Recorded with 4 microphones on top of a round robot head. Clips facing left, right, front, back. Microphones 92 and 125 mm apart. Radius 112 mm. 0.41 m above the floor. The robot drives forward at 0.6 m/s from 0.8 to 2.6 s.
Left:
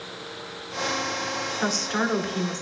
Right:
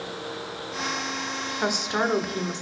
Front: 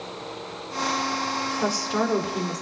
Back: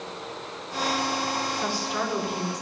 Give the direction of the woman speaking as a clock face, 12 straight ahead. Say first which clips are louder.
Right 1 dB, front 4 dB; 12 o'clock.